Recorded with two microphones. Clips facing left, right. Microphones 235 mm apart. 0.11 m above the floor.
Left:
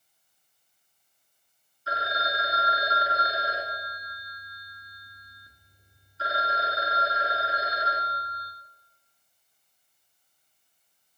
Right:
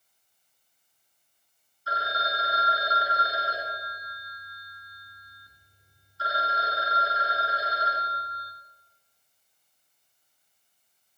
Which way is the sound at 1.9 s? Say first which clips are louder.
Left 1 dB; 25° left (ahead or behind).